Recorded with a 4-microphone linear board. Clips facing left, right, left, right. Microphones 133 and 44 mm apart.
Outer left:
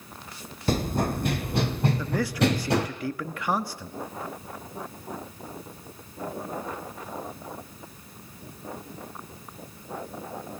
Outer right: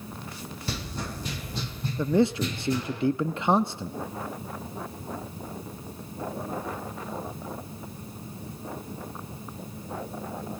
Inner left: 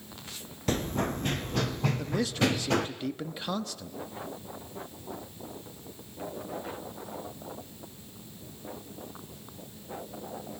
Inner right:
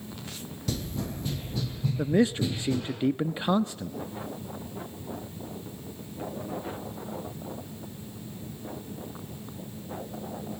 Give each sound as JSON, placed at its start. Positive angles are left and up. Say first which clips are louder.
{"t": 0.7, "sound": "running footsteps", "louder": "outer left 11 dB, inner left 5 dB", "side_deg": 45, "distance_m": 1.7}
{"t": 2.0, "sound": "a man speaking", "louder": "outer right 7 dB, inner right 6 dB", "side_deg": -25, "distance_m": 0.8}